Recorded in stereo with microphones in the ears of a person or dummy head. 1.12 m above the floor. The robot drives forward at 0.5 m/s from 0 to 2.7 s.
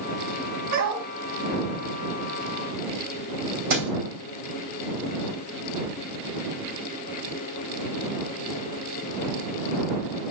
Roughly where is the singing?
No singing in this recording.